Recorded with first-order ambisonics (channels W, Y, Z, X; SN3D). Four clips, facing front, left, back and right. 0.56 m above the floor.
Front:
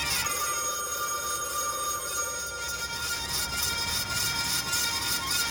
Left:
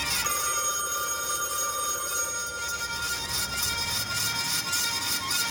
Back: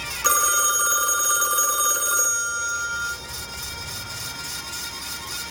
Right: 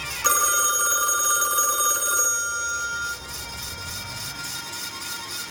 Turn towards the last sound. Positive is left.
turn(degrees=-145)